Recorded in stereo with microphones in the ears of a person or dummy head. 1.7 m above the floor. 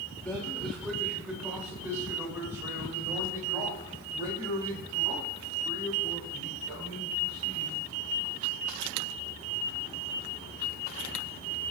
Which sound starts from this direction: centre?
A man speaking, at 0.2 s.